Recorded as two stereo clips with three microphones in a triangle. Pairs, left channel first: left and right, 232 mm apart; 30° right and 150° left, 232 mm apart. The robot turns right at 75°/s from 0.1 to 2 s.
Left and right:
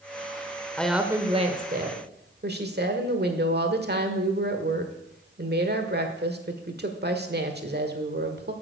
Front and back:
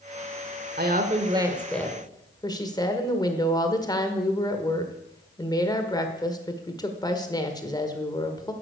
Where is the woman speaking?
170° left, 1.4 m; by 8.5 s 95° right, 1.4 m.